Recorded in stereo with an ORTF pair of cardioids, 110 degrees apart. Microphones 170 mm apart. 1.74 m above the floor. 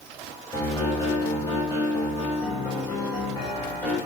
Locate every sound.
0.5 s a piano: 20° left, 3.5 m